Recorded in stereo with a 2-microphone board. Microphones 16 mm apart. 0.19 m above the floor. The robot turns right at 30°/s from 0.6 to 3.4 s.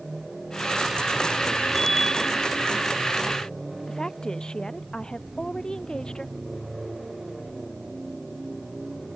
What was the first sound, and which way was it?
A bicycle bell, 20° left (ahead or behind).